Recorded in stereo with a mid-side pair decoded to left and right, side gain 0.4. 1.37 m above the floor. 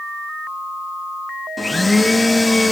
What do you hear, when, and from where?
1.6 s a blender: 15° left, 2.0 m